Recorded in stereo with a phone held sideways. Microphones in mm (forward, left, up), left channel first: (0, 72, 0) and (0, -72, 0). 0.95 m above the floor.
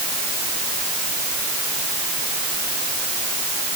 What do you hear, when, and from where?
Only background noise.